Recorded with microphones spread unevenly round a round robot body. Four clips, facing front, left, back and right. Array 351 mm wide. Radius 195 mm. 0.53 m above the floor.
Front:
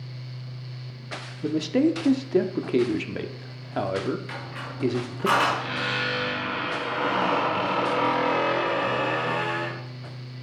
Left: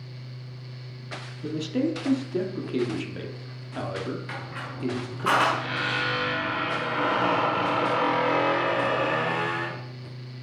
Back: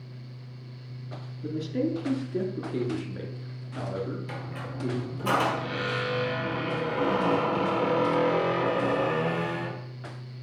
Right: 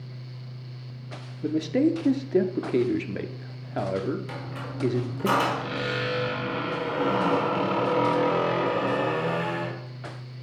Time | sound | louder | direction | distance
1.4 | a man speaking | right 4 dB, front 7 dB | 30° right | 1.1 m
4.3 | a squeak | even, front 1 dB | 145° right | 1.6 m